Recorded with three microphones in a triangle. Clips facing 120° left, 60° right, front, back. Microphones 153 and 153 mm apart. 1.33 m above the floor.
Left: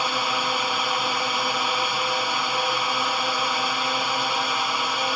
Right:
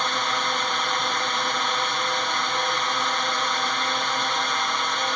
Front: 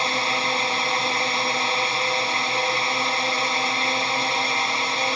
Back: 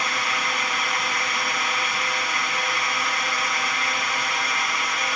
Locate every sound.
0.0 s a drone: 40° left